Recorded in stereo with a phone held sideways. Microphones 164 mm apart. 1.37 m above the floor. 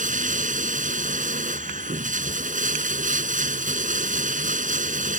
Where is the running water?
50° right (ahead or behind).